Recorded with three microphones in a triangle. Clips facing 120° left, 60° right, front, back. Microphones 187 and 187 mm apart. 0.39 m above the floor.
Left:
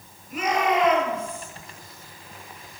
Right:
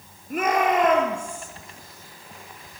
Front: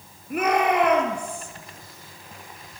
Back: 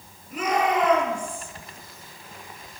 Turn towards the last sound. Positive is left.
turn(degrees=-20)